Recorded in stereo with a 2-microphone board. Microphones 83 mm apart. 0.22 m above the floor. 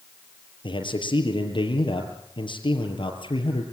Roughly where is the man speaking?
Left.